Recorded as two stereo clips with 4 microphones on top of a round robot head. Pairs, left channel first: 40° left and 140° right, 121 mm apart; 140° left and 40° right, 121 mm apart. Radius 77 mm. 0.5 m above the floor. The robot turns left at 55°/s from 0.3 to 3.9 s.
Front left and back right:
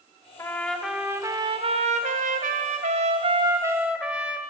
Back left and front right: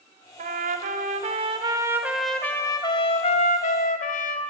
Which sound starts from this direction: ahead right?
A trumpet, at 0.4 s.